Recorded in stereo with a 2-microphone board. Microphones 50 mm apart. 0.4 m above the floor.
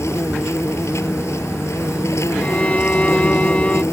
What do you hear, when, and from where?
0.0 s an insect: 70° left (ahead or behind)
2.4 s a violin: 30° left (ahead or behind)